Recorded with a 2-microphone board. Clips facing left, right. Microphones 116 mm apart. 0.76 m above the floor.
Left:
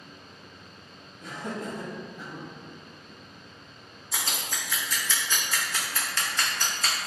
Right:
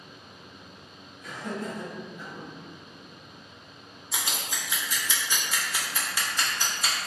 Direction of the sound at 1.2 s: 40° left (ahead or behind).